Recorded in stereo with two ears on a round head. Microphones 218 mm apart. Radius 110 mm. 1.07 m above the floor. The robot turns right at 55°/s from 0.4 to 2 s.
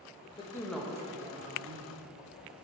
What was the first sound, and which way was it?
A man speaking, 160° left.